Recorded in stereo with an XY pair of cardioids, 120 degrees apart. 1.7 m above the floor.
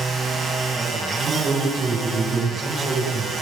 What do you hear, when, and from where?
0.0 s a machine running: 35° right, 7.5 m
1.2 s a man speaking: 40° right, 9.5 m